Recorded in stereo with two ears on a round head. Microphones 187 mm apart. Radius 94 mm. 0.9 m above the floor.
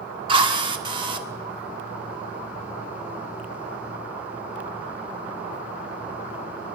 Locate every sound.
0.3 s a drill: 25° right (ahead or behind), 1.5 m